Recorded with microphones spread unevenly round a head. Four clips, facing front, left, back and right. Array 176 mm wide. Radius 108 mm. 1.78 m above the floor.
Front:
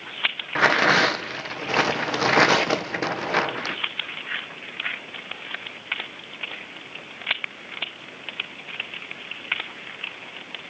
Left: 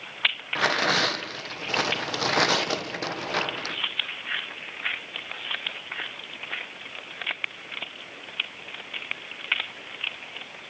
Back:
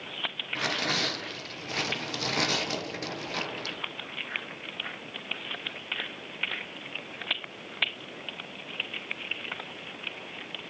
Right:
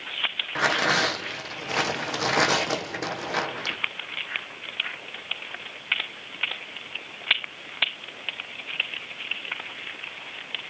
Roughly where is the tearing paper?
Ahead.